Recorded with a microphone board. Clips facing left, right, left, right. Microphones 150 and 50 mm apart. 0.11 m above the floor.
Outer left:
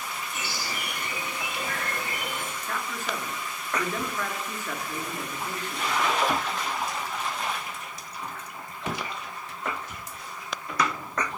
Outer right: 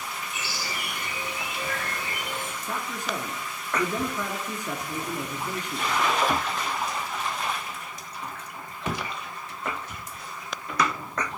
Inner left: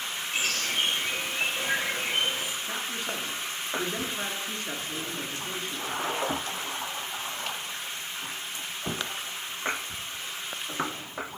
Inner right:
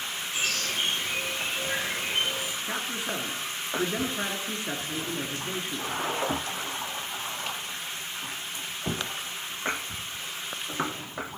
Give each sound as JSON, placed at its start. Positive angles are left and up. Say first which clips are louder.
{"t": 0.3, "sound": "a bird", "louder": "even, inner left 1 dB", "side_deg": 55, "distance_m": 6.0}
{"t": 2.6, "sound": "a man speaking", "louder": "outer right 1 dB, inner right 1 dB", "side_deg": -15, "distance_m": 1.1}